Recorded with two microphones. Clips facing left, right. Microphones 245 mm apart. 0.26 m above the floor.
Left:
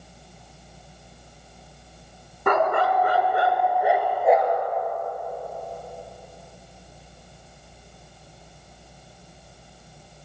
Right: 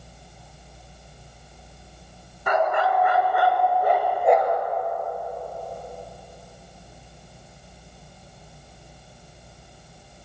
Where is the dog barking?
65° left (ahead or behind), 1.3 m; by 4.6 s centre (ahead or behind), 2.5 m.